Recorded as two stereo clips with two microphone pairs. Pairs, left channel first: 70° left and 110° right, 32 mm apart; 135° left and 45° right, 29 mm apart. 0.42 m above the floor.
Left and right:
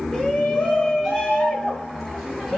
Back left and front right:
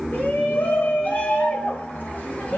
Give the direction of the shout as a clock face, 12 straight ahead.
7 o'clock.